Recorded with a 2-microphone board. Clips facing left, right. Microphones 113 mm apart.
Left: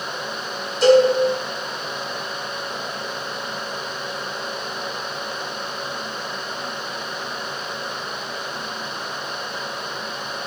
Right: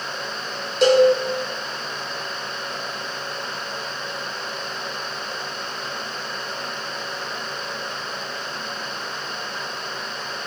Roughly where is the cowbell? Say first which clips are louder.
Left 1 dB; right.